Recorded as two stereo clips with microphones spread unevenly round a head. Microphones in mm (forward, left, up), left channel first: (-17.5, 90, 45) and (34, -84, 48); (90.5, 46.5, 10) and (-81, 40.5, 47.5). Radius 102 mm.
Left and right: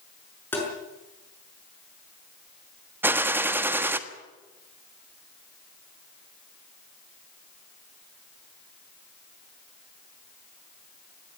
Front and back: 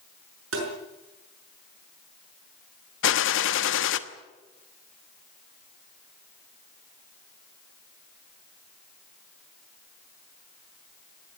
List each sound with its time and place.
0.5 s tapping: 175° right, 6.5 m
3.0 s a gunshot: 5° left, 1.1 m